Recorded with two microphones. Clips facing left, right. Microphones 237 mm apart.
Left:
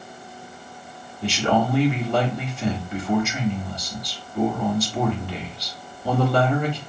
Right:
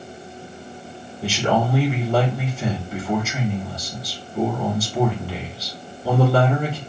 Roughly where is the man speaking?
Centre.